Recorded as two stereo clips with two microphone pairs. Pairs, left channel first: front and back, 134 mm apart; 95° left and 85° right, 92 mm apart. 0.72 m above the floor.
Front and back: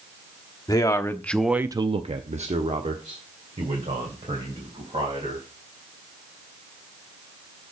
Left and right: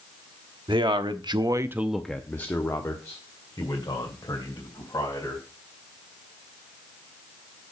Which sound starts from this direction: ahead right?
A man speaking, at 0.7 s.